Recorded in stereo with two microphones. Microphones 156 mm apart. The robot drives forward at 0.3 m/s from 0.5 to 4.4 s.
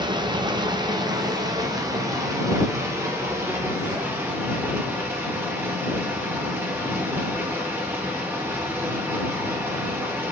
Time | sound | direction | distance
0.0 | running water | 30° right (ahead or behind) | 1.0 m